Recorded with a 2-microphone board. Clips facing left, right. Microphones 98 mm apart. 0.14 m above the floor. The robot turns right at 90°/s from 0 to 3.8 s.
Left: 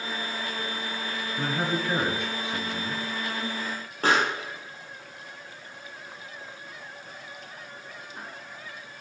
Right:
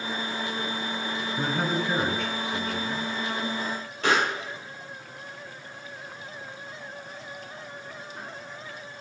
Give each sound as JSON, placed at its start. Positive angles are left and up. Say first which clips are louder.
{"t": 1.4, "sound": "a man speaking", "louder": "right 1 dB", "side_deg": -20, "distance_m": 1.6}
{"t": 4.0, "sound": "a pop", "louder": "left 1 dB", "side_deg": 40, "distance_m": 3.5}